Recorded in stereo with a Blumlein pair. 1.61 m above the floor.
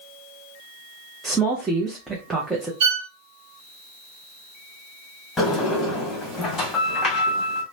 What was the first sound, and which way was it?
A woman speaking, 10° right.